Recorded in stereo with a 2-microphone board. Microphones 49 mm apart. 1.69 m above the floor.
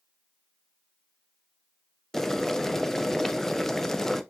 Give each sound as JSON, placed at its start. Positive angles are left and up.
{"t": 2.1, "sound": "boiling", "side_deg": 10, "distance_m": 0.7}